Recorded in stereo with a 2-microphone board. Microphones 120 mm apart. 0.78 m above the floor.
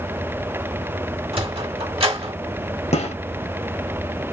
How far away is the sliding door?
About 1.0 m.